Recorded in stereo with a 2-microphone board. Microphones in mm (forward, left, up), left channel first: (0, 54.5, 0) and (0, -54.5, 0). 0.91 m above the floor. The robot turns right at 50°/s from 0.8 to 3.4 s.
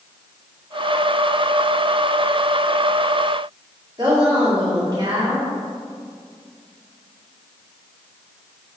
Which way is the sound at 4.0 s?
40° right (ahead or behind).